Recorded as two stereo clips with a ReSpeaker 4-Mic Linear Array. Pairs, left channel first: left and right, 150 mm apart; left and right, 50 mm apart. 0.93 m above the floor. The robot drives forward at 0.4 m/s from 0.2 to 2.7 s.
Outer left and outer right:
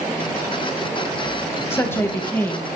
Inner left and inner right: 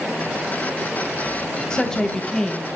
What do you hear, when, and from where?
1.7 s a woman speaking: 15° left (ahead or behind), 0.7 m; by 2.8 s 10° left (ahead or behind), 0.9 m